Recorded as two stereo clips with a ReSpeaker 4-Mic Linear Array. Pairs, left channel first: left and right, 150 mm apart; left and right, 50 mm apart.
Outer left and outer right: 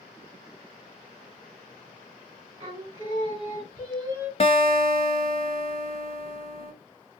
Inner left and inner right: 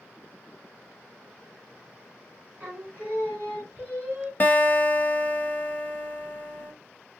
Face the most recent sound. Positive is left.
turn(degrees=40)  # may be behind; listen again after turning